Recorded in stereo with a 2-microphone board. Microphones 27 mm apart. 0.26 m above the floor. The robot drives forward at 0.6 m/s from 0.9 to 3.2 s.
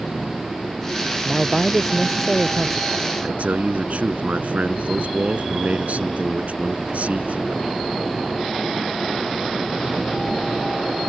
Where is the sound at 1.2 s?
10° right (ahead or behind).